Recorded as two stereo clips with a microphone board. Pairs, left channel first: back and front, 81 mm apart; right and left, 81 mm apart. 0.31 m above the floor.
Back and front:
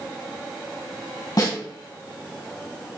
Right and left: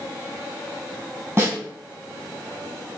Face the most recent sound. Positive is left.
turn(degrees=145)